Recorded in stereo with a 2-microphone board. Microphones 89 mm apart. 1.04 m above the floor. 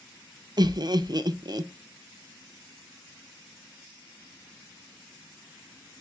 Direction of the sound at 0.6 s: 50° right (ahead or behind).